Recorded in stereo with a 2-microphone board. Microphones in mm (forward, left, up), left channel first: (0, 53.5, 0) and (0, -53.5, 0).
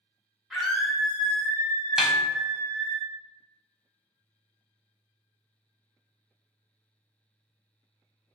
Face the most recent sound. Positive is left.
turn(degrees=-5)  # may be behind; listen again after turning